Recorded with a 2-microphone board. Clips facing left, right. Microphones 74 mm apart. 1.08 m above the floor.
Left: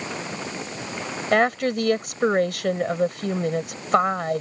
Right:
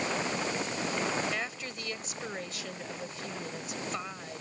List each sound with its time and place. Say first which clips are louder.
1.3 s a woman speaking: left 17 dB; 60° left (ahead or behind)